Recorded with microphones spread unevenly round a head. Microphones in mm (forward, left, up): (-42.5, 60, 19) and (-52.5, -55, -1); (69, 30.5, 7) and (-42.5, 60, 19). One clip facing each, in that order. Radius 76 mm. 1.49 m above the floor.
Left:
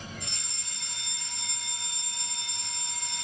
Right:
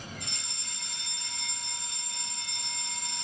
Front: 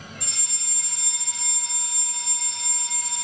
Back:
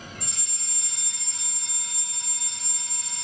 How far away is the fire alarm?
About 4 m.